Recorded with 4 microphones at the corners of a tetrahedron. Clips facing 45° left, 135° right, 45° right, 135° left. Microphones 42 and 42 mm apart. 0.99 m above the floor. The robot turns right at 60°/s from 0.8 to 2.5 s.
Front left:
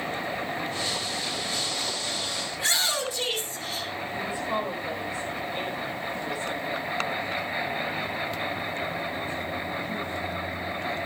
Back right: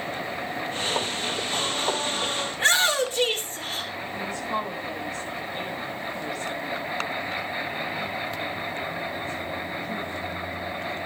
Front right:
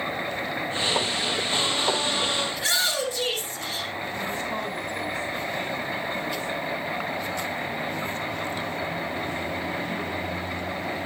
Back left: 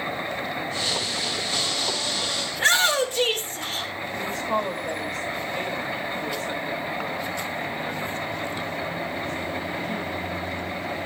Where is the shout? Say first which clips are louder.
Back right 6 dB, back left 6 dB; 175° left, 3 m.